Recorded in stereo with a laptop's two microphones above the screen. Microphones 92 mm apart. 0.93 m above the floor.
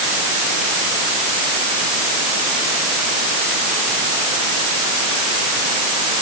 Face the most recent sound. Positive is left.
No sound to turn to.